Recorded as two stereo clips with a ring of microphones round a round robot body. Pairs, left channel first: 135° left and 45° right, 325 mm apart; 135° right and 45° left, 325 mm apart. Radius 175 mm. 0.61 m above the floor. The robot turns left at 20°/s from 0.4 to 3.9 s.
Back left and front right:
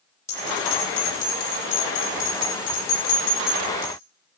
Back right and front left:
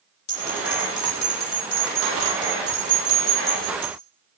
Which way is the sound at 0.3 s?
145° right.